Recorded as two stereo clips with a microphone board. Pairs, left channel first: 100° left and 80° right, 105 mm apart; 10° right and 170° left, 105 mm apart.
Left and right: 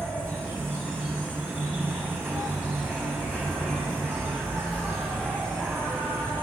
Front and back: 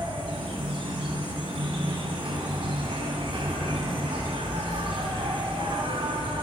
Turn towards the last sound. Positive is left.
turn(degrees=-150)